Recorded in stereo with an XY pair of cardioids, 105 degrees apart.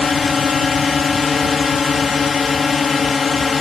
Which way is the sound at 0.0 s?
35° left.